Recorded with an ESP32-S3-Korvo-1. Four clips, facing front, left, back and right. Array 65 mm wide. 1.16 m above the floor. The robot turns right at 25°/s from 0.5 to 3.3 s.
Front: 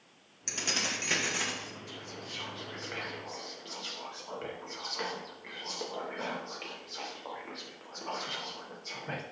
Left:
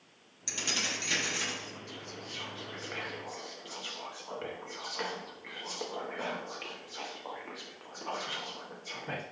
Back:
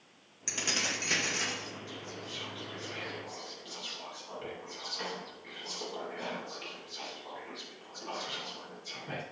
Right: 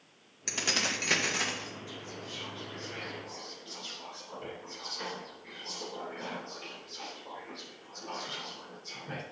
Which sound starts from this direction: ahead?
Whispering, at 1.9 s.